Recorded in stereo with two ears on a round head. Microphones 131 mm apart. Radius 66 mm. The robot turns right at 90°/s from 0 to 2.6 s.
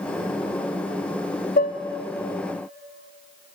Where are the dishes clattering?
65° left (ahead or behind), 1.5 m; by 1.8 s 45° left (ahead or behind), 1.5 m.